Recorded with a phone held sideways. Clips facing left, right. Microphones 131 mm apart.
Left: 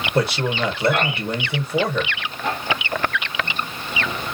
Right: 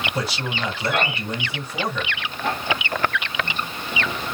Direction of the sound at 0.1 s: 60° left (ahead or behind).